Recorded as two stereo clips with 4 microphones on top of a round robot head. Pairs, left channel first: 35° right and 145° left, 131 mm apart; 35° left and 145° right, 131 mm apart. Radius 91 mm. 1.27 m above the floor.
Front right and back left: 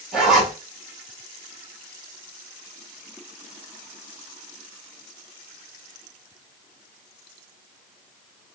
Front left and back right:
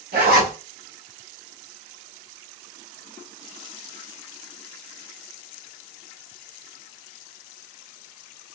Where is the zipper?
130° right, 1.3 m.